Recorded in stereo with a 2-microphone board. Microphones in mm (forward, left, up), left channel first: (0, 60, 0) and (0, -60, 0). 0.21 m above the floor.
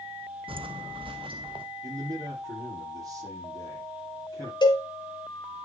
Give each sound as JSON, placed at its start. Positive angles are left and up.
{"t": 0.5, "sound": "footsteps", "side_deg": -50, "distance_m": 0.8}
{"t": 1.8, "sound": "a man speaking", "side_deg": -30, "distance_m": 7.0}
{"t": 4.6, "sound": "a cowbell", "side_deg": 40, "distance_m": 3.0}